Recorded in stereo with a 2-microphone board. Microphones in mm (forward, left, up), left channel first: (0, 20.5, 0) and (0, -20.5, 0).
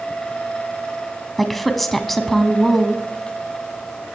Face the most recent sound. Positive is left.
turn(degrees=5)  # may be behind; listen again after turning